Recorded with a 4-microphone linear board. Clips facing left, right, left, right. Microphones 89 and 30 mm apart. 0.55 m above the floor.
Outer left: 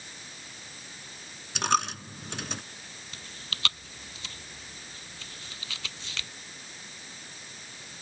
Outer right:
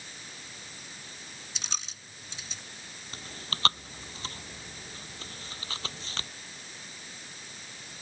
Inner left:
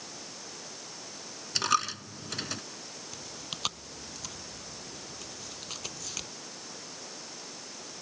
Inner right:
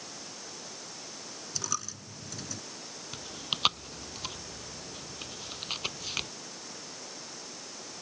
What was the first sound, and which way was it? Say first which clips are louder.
A dropped coin: outer left 18 dB, inner left 11 dB; 65° left (ahead or behind).